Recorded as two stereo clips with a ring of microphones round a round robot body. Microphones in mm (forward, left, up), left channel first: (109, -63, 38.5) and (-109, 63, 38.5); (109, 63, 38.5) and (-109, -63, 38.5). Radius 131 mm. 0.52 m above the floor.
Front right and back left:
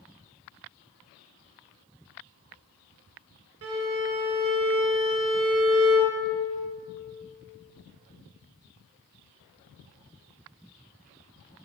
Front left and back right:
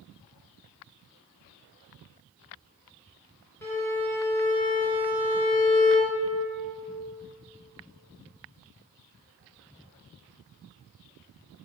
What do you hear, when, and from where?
3.6 s a violin: 110° left, 0.6 m